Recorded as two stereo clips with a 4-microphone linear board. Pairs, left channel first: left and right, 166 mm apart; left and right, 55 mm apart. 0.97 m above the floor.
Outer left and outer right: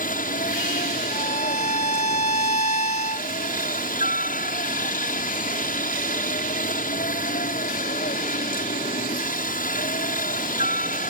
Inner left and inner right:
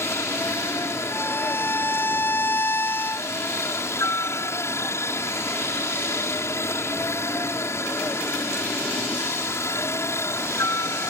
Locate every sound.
0.0 s a helicopter: 55° left (ahead or behind)
1.1 s a violin: 45° left (ahead or behind)